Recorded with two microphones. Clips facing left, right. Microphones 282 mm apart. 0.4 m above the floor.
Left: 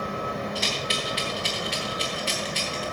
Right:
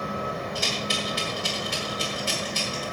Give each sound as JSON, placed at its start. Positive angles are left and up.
{"t": 0.6, "sound": "a rattle", "side_deg": -55, "distance_m": 4.0}